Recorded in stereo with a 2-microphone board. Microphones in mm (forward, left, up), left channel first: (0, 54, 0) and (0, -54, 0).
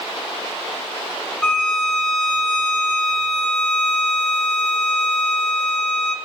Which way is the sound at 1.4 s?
10° left (ahead or behind).